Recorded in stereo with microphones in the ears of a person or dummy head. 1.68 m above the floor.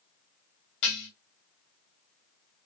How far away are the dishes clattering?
About 2 m.